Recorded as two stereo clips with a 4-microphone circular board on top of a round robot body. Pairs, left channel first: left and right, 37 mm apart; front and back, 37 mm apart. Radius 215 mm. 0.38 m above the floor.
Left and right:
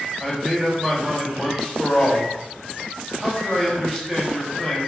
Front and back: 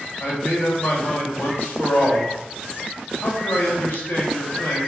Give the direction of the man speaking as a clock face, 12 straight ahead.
12 o'clock.